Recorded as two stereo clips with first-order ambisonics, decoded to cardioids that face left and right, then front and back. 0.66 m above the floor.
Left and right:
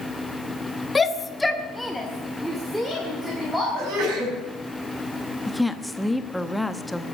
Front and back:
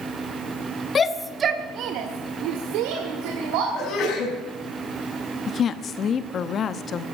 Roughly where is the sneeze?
Right.